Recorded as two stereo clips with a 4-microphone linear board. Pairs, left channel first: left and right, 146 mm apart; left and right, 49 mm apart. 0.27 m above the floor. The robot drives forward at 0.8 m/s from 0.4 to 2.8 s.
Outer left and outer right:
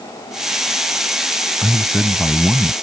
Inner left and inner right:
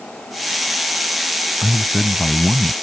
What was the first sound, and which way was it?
A man speaking, 5° left (ahead or behind).